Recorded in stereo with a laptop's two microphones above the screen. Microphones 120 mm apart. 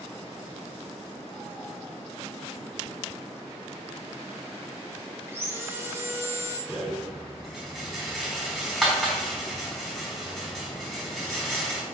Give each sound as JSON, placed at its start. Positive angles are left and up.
{"t": 5.3, "sound": "sawing", "side_deg": -20, "distance_m": 2.5}
{"t": 6.7, "sound": "a rattle", "side_deg": -5, "distance_m": 3.0}